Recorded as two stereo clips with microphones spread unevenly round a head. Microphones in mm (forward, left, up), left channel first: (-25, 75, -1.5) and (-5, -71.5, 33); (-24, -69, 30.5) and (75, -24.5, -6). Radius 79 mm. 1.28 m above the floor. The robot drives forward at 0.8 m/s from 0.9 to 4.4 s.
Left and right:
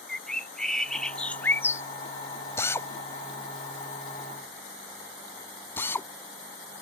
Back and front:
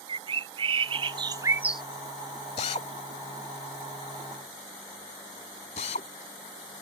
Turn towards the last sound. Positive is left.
turn(degrees=180)